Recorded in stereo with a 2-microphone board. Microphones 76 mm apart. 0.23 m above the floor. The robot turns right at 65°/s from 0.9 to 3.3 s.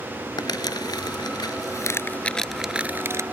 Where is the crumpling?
70° left (ahead or behind); by 3.2 s 45° right (ahead or behind).